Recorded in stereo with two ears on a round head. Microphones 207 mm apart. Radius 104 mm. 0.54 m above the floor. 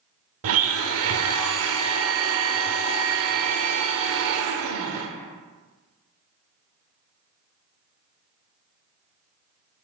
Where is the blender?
65° right (ahead or behind), 0.7 m.